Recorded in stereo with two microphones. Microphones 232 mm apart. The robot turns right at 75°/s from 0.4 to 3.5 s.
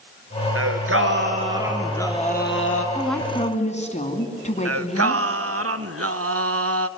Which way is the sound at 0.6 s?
95° right.